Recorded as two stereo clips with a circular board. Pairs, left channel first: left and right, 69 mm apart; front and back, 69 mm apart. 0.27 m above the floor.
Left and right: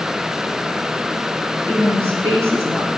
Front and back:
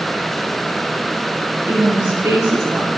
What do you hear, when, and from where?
1.7 s a woman speaking: 125° right, 5.5 m